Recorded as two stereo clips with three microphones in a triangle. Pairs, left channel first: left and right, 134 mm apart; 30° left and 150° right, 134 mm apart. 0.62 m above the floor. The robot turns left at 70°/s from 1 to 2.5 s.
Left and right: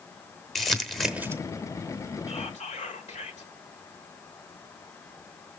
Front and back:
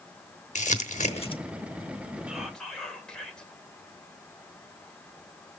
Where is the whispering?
130° left, 2.5 m; by 3.5 s 115° left, 2.5 m.